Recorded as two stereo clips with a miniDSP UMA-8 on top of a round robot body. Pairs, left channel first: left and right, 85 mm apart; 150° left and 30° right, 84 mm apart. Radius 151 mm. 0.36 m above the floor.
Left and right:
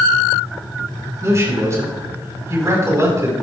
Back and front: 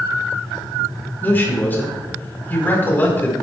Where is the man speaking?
145° right, 4.5 m.